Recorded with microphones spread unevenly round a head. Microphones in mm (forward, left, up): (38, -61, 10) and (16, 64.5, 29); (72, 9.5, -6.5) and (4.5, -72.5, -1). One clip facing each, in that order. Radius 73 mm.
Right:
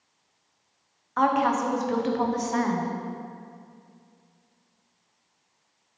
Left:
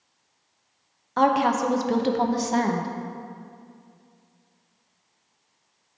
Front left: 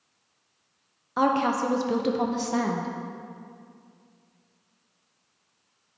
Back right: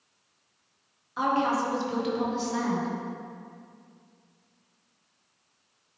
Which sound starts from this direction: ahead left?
A woman speaking, at 1.2 s.